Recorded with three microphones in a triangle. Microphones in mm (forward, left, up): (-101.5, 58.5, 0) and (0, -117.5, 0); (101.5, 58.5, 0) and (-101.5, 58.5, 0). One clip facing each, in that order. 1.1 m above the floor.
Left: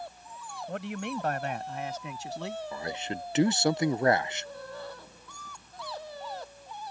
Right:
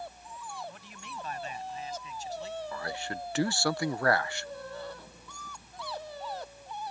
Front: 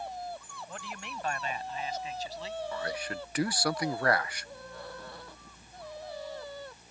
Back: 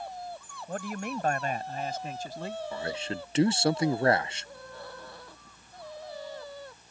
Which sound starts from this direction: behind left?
A man speaking, at 0.7 s.